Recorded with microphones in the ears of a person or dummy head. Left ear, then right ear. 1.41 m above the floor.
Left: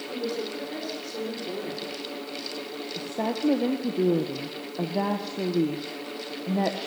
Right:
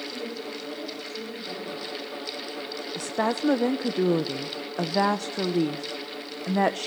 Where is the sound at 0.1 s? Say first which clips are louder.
Left 3 dB; 20° left (ahead or behind), 5.5 m; by 1.9 s 35° left (ahead or behind), 3.5 m.